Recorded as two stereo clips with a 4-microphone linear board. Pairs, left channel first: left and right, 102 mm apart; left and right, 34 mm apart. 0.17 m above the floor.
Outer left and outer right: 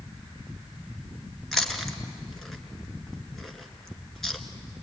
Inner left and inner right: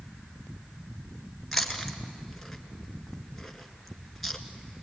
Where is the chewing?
5° left (ahead or behind), 1.9 m.